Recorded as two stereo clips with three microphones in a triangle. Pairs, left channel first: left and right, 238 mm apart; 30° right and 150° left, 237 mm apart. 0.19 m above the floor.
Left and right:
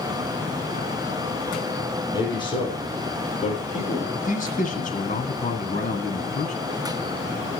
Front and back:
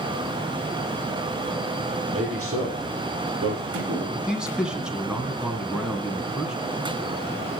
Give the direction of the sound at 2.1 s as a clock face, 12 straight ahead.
7 o'clock.